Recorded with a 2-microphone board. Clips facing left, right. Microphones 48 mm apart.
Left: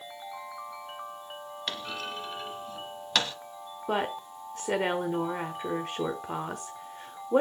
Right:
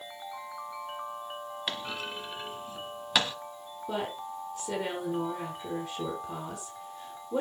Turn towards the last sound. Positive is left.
turn(degrees=50)  # may be behind; listen again after turning